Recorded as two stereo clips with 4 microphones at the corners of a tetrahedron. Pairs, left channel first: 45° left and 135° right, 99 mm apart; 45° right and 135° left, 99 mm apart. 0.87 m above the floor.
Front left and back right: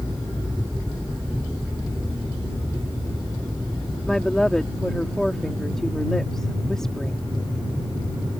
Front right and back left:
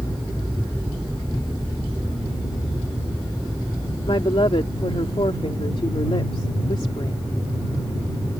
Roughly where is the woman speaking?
Ahead right.